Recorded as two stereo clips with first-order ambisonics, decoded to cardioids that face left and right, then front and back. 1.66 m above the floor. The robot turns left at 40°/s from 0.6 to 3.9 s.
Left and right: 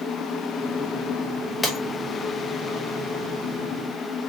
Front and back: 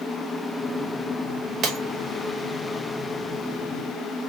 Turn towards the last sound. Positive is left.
turn(degrees=70)